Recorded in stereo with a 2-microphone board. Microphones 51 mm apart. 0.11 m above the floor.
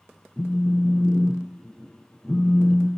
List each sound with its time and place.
0.4 s a phone buzzing: 10° left (ahead or behind), 0.6 m